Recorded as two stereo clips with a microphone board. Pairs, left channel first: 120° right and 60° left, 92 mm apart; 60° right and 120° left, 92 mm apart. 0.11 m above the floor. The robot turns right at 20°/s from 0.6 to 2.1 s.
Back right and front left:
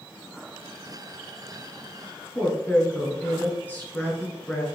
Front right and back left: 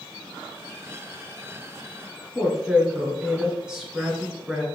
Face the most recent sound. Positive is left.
turn(degrees=-165)